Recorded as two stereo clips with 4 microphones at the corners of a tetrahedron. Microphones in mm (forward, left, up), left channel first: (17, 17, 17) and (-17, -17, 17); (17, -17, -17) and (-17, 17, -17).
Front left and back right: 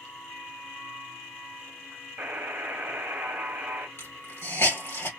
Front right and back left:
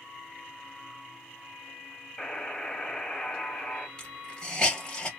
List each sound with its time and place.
2.2 s a buzzer: 115° right, 0.8 m
4.0 s a hiss: 20° left, 1.2 m